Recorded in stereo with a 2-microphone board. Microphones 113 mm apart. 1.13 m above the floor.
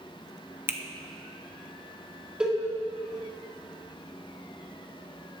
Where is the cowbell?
10° right (ahead or behind), 1.8 m.